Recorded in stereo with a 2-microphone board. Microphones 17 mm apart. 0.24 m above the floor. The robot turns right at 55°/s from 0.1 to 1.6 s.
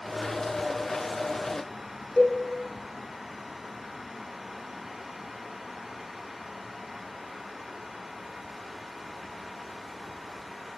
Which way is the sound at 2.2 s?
60° left (ahead or behind).